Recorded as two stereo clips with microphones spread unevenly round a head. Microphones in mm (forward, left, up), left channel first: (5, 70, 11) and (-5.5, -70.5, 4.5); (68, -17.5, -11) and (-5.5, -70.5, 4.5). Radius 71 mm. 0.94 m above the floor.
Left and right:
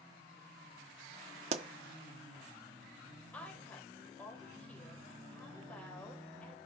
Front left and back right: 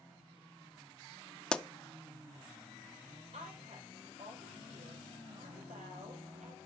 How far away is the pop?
About 0.8 m.